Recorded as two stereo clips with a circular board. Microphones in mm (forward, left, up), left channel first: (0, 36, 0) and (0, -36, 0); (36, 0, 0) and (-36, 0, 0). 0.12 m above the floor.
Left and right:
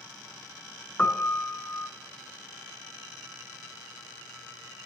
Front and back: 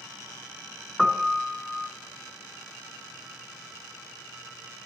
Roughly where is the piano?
Left.